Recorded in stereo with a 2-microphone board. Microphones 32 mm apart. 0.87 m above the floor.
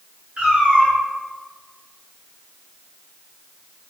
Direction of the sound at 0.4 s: 30° right (ahead or behind).